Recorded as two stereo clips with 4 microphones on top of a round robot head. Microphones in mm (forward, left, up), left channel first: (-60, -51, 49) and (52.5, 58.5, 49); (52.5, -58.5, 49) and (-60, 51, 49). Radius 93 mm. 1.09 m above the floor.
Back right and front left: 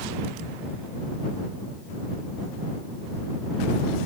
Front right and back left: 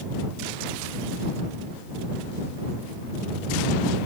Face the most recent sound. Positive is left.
No sound to turn to.